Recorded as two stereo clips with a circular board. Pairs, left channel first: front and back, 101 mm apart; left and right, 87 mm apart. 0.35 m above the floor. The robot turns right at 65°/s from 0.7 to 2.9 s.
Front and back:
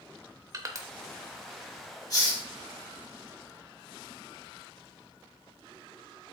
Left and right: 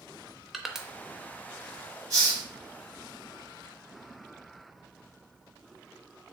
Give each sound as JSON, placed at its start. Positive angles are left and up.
{"t": 0.5, "sound": "crushing", "azimuth_deg": -175, "distance_m": 0.5}
{"t": 2.1, "sound": "a hiss", "azimuth_deg": -45, "distance_m": 2.0}